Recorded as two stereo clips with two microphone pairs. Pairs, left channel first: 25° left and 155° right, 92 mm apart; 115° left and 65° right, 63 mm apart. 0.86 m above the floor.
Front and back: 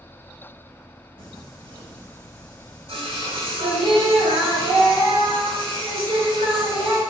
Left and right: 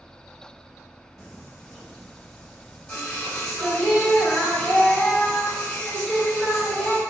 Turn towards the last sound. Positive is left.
turn(degrees=-155)